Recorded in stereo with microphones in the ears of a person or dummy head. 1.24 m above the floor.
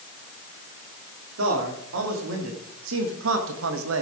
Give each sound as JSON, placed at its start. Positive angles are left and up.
{"t": 1.4, "sound": "a man speaking", "side_deg": -75, "distance_m": 2.5}